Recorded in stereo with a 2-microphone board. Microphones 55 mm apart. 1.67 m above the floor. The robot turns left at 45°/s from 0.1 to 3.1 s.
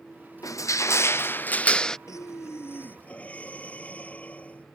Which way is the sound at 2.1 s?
75° left.